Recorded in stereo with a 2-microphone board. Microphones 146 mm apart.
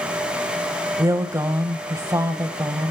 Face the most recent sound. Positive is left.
turn(degrees=-20)  # may be behind; listen again after turning